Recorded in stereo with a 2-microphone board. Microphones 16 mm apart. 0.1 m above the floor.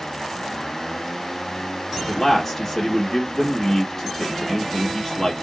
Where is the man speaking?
15° left (ahead or behind), 1.8 m.